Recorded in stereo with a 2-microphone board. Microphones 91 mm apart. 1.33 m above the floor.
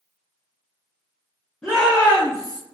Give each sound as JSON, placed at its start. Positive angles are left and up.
{"t": 1.6, "sound": "a shout", "side_deg": 10, "distance_m": 1.7}